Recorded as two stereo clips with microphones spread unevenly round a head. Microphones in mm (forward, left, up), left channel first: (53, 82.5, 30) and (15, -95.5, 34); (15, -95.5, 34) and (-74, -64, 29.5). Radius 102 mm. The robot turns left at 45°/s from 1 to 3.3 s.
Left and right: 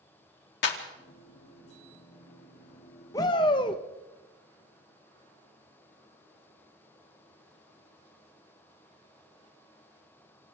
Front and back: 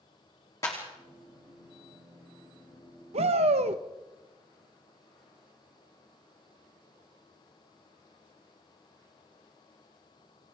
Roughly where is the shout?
Behind left.